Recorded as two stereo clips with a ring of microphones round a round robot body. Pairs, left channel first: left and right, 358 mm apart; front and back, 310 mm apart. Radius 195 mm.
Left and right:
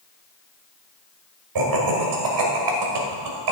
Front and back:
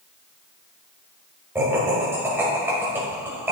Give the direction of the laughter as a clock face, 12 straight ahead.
3 o'clock.